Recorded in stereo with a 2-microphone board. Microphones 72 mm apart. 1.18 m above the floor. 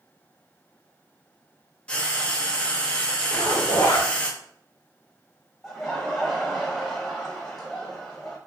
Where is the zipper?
50° left (ahead or behind), 1.8 m.